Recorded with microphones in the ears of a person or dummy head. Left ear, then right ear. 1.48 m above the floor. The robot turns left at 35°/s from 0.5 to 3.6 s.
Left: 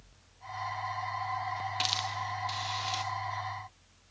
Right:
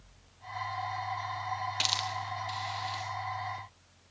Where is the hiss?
10° right (ahead or behind), 1.4 m; by 3.0 s 30° left (ahead or behind), 1.4 m.